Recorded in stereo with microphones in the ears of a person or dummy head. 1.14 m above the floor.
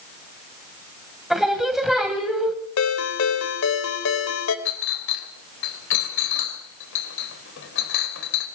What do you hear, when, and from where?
1.3 s singing: centre (ahead or behind), 2.5 m
2.8 s a ringtone: 85° left, 3 m
4.7 s a clink: 75° left (ahead or behind), 3.5 m